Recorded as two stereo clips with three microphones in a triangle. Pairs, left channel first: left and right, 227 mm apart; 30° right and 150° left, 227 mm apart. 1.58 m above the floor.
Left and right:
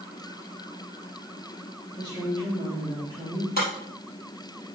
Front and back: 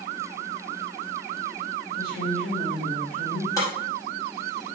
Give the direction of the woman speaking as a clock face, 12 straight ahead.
11 o'clock.